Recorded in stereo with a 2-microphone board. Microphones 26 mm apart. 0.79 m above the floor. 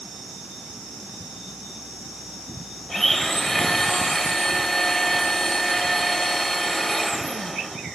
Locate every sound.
2.9 s a blender: 10° left (ahead or behind), 1.2 m